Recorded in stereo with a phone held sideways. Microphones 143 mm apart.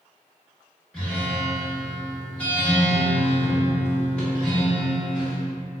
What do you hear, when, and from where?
0.9 s a guitar: 10° left (ahead or behind), 1.1 m